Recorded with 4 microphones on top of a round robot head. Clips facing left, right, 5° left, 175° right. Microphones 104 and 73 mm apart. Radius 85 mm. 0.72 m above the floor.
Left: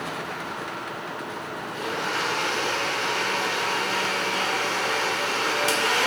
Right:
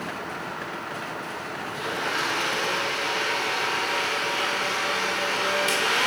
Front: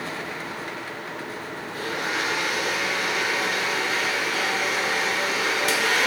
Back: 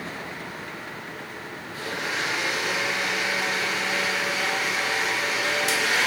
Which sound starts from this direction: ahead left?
A blender, at 1.7 s.